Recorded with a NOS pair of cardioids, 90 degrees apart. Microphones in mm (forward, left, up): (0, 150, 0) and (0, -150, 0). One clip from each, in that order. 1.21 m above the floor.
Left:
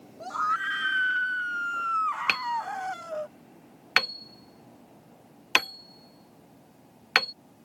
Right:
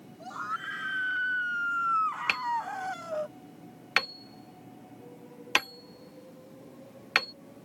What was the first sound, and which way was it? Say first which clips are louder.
A scream: left 8 dB; 40° left.